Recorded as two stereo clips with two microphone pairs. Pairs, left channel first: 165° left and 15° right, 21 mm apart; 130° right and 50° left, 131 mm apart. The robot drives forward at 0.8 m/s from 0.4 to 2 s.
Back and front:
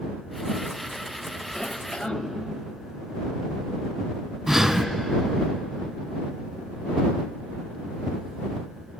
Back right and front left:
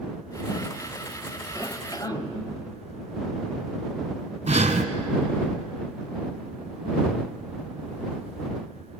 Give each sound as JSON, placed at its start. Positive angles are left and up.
{"t": 1.6, "sound": "a cough", "azimuth_deg": 175, "distance_m": 1.2}
{"t": 4.5, "sound": "breathing", "azimuth_deg": 70, "distance_m": 1.2}